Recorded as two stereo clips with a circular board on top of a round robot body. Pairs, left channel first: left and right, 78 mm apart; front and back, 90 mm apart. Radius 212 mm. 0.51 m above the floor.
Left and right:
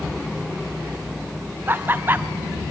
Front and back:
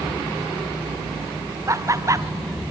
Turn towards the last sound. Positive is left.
turn(degrees=-140)